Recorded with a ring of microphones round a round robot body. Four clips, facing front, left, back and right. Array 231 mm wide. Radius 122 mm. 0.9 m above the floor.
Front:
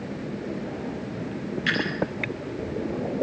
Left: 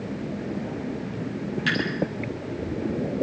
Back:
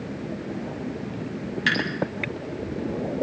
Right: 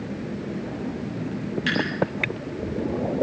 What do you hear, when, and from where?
1.7 s dripping: 175° left, 9 m